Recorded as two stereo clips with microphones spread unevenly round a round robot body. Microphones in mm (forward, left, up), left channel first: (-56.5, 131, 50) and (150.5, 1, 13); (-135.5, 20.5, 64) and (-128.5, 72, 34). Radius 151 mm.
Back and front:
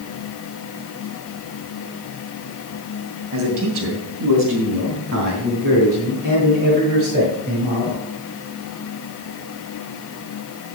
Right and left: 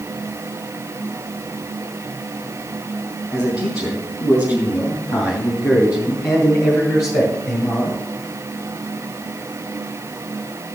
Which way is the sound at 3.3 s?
40° right.